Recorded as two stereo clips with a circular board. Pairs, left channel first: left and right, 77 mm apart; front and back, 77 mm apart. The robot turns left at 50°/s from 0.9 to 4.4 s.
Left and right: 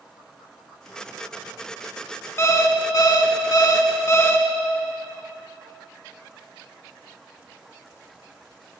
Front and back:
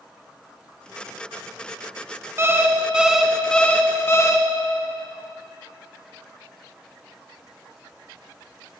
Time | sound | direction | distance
2.4 | an alarm clock | 135° left | 0.5 m